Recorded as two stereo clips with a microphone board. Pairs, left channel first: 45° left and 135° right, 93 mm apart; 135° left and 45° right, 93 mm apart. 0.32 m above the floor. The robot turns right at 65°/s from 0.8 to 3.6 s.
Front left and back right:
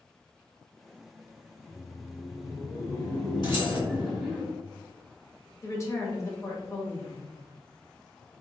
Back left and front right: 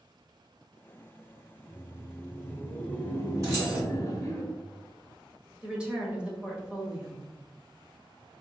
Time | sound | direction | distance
1.6 | laughter | straight ahead | 1.0 m
3.4 | keys jangling | 10° left | 2.0 m
5.6 | a woman speaking | 25° left | 0.9 m